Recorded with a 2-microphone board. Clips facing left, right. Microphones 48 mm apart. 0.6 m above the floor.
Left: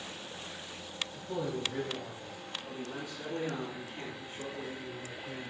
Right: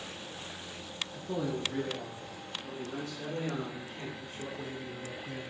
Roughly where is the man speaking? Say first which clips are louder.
Right 2 dB; right.